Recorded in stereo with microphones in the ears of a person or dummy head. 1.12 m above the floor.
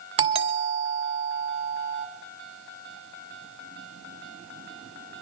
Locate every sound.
0.2 s a doorbell: 25° right (ahead or behind), 2 m